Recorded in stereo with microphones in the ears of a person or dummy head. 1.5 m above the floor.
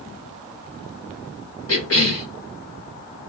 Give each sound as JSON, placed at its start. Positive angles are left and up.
{"t": 1.7, "sound": "a cough", "side_deg": 90, "distance_m": 2.0}